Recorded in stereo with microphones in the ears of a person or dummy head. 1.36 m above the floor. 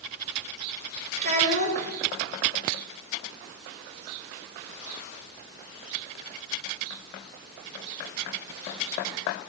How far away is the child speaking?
About 4.5 m.